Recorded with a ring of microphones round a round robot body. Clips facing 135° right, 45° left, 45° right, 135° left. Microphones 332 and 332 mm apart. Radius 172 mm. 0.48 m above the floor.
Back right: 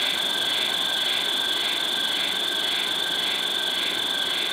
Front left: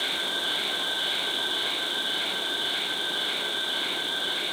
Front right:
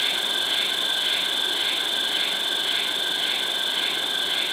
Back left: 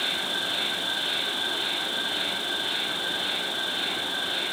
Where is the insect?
115° right, 3 m.